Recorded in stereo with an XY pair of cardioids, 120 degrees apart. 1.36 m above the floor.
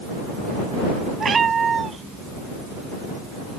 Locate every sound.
1.2 s a cat meowing: 35° right; by 3.6 s 20° right